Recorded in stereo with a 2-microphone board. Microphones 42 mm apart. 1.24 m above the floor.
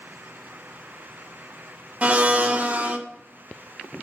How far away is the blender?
About 0.6 m.